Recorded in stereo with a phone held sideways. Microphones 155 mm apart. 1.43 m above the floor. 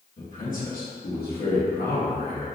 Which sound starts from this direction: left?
A man speaking, at 0.2 s.